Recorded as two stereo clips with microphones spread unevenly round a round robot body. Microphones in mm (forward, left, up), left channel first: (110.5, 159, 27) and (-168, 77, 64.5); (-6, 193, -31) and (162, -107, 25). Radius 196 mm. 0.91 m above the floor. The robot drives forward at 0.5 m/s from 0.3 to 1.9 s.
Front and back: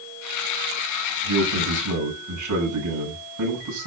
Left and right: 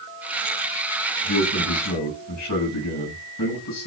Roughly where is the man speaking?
Behind.